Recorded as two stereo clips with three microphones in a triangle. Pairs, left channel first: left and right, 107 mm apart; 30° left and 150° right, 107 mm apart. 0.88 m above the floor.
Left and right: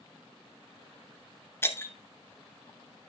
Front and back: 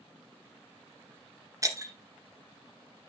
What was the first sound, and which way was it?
Breaking glass, 155° left.